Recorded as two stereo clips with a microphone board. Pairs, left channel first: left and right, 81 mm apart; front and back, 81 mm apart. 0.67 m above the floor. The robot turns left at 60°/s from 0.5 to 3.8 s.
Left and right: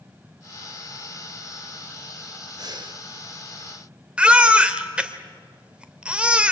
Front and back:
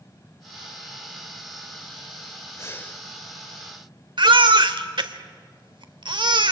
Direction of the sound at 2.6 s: 50° right.